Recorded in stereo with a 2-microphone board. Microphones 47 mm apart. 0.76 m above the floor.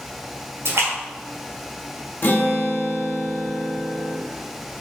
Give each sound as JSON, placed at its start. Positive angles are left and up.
{"t": 0.7, "sound": "a splash", "side_deg": -85, "distance_m": 1.2}
{"t": 2.2, "sound": "a guitar", "side_deg": 50, "distance_m": 1.0}